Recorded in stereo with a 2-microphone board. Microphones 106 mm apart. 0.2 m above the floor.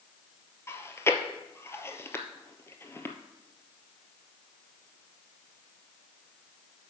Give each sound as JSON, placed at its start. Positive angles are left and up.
{"t": 0.7, "sound": "chewing", "side_deg": 25, "distance_m": 0.8}